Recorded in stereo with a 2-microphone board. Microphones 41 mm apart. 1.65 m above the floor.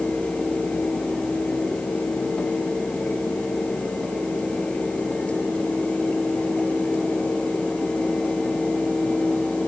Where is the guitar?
No guitar in this recording.